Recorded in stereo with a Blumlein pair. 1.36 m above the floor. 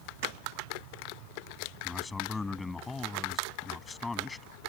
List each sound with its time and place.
1.8 s a man speaking: 10° left